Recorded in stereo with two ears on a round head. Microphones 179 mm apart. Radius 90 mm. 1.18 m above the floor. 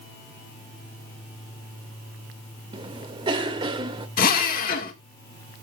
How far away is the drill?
About 1.8 m.